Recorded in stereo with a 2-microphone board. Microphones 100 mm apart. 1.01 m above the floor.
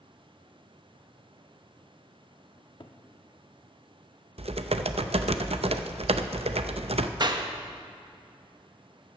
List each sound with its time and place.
2.6 s a cupboard door: 50° left (ahead or behind), 0.9 m
4.4 s typing on a keyboard: 80° right, 0.6 m
7.2 s a clap: 45° right (ahead or behind), 0.9 m